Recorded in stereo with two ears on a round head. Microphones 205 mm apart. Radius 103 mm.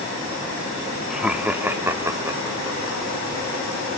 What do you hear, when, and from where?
1.1 s laughter: centre (ahead or behind), 0.8 m; by 3.0 s 15° right (ahead or behind), 1.7 m